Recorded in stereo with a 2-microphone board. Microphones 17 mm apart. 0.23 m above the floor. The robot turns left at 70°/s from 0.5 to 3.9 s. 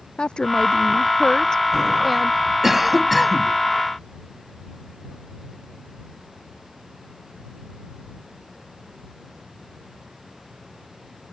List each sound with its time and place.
0.2 s a woman speaking: 110° left; by 2.4 s 25° right
2.6 s a cough: 150° right; by 3.5 s 150° left